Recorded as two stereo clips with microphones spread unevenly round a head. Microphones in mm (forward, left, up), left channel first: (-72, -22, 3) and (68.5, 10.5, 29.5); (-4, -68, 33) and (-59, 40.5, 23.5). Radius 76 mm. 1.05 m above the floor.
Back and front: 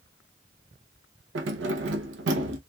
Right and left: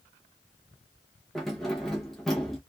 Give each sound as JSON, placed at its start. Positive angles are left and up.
{"t": 1.4, "sound": "keys jangling", "azimuth_deg": 25, "distance_m": 0.6}